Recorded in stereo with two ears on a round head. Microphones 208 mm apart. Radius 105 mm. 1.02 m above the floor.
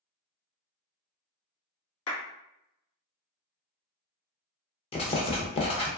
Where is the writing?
25° left (ahead or behind), 0.6 m.